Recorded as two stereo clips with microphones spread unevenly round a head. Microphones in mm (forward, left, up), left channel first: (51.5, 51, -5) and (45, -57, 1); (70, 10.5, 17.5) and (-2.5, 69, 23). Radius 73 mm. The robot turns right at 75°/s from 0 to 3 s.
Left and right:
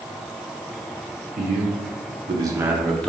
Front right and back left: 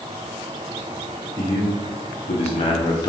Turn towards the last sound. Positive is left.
turn(degrees=5)